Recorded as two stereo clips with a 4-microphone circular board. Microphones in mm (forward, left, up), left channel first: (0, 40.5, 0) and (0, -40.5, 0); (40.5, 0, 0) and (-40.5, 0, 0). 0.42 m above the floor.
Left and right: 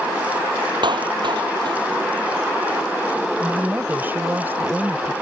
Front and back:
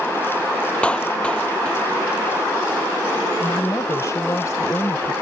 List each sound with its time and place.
0.8 s a clap: 75° right
3.4 s a woman speaking: 35° right